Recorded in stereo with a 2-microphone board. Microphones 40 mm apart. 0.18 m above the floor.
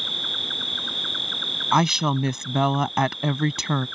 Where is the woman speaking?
10° right (ahead or behind).